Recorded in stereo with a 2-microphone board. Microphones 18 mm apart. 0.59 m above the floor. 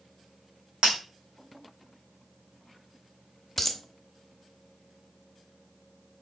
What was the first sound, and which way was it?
Breaking glass, 80° right.